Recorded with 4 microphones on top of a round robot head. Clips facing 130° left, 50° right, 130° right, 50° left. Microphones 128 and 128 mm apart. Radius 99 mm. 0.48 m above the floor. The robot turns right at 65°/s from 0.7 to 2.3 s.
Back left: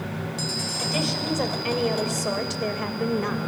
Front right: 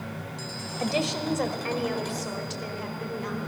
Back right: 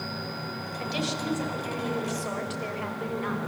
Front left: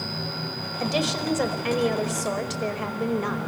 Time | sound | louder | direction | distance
0.8 | a woman speaking | front right 1 dB, front left 6 dB | straight ahead | 2 m